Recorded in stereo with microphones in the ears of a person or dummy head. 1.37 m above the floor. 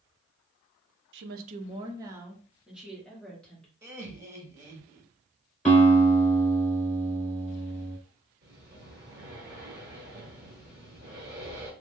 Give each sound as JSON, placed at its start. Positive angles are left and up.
{"t": 1.1, "sound": "a woman speaking", "side_deg": -65, "distance_m": 0.5}
{"t": 3.8, "sound": "laughter", "side_deg": -15, "distance_m": 1.5}
{"t": 5.7, "sound": "a guitar", "side_deg": 5, "distance_m": 2.0}
{"t": 8.4, "sound": "breathing", "side_deg": -25, "distance_m": 1.2}